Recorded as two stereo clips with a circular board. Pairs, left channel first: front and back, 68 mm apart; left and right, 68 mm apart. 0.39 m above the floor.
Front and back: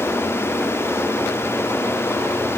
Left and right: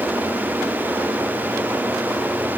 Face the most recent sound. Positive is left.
No sound to turn to.